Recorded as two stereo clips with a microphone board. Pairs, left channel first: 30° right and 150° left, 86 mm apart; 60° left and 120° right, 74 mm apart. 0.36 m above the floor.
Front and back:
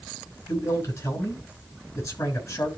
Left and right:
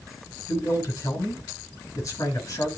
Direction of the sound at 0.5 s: 15° left.